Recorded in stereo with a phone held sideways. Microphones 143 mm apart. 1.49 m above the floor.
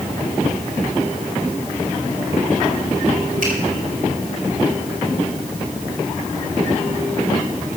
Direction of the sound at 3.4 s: 85° right.